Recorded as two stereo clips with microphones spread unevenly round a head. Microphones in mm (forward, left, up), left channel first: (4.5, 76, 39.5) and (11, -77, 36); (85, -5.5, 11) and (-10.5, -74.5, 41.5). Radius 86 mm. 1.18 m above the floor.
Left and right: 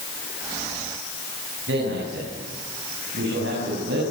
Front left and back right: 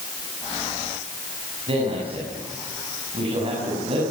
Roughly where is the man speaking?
Right.